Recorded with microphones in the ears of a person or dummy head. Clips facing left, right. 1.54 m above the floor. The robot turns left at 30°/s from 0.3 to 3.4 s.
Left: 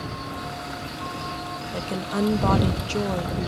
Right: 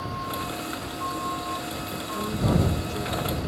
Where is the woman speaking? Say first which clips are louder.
Left 6 dB; 115° left; by 3.5 s 65° left.